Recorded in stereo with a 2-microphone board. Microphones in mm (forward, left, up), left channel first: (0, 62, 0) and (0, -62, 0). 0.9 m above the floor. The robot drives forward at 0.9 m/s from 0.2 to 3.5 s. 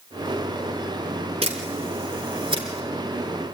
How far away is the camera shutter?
About 4 m.